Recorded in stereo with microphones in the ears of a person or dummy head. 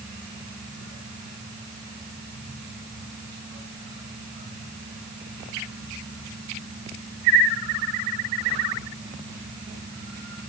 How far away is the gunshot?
I don't hear a gunshot.